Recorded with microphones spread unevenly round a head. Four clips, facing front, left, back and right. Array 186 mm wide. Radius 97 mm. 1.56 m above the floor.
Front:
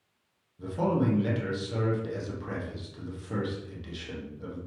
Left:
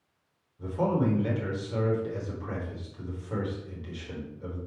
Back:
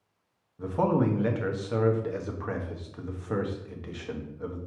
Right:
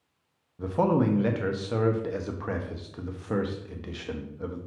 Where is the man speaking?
105° right, 1.2 m.